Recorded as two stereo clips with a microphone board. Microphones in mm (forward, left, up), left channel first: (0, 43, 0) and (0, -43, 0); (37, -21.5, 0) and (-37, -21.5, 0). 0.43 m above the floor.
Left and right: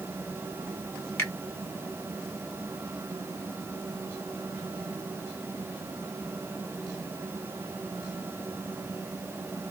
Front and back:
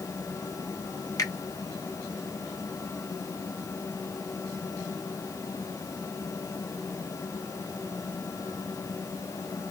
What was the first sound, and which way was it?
A finger snap, 30° left.